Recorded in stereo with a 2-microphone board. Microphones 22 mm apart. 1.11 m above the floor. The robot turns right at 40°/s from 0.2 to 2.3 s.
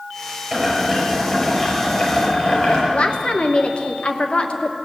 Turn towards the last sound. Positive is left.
turn(degrees=50)  # may be behind; listen again after turning